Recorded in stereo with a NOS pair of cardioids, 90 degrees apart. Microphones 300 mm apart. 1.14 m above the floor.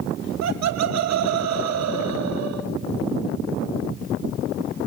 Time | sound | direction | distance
0.4 | laughter | 60° right | 1.3 m